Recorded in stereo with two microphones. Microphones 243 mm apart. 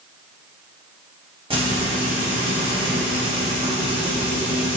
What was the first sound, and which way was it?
Frying, 25° right (ahead or behind).